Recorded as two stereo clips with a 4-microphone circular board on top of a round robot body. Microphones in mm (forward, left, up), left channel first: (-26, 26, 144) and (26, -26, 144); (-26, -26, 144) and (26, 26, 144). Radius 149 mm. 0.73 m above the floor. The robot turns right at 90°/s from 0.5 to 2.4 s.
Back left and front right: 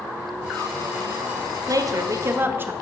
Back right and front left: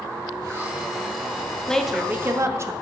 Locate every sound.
1.7 s a woman speaking: 60° right, 1.0 m; by 2.7 s 5° left, 1.0 m